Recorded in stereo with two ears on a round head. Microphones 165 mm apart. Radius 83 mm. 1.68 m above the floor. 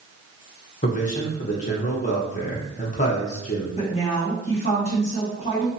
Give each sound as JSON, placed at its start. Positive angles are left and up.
{"t": 0.8, "sound": "a man speaking", "side_deg": 40, "distance_m": 0.8}
{"t": 3.8, "sound": "a woman speaking", "side_deg": 35, "distance_m": 1.5}